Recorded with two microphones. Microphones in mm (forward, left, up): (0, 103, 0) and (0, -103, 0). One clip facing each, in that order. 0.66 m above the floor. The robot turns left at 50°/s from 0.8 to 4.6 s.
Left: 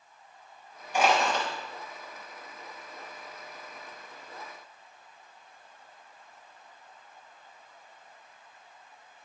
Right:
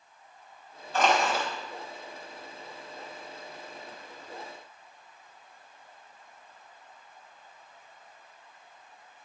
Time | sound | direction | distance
0.9 | crushing | 15° left (ahead or behind) | 4 m